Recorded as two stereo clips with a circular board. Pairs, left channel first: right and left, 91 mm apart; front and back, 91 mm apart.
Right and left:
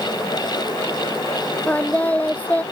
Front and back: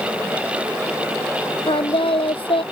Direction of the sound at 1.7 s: 15° right.